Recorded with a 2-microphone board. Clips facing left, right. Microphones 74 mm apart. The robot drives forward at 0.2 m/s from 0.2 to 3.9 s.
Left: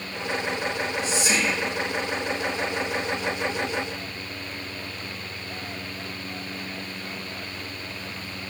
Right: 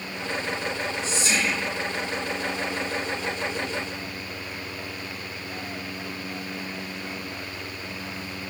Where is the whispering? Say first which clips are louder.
Left 2 dB; 15° left (ahead or behind), 1.0 m.